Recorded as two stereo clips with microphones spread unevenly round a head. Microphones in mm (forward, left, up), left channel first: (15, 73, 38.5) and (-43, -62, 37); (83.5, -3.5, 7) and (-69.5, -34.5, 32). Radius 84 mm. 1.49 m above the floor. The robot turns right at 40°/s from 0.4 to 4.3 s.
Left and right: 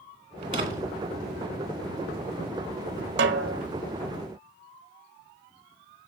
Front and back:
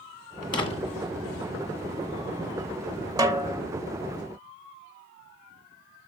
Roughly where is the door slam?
Ahead right.